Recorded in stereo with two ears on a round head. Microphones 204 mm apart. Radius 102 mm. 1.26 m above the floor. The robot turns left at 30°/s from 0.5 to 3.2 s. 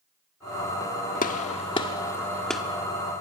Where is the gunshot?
35° left (ahead or behind), 1.3 m; by 2.6 s centre (ahead or behind), 1.3 m.